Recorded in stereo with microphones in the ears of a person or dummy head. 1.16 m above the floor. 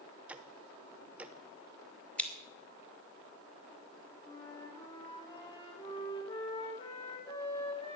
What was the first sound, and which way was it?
Ticking, 10° right (ahead or behind).